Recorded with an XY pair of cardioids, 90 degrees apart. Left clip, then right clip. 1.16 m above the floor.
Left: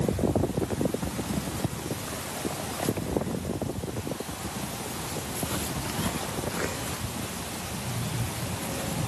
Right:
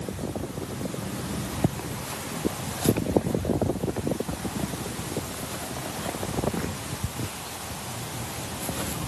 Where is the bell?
I don't hear a bell.